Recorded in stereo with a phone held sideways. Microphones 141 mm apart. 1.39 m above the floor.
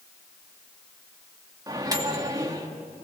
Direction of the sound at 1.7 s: 25° right (ahead or behind).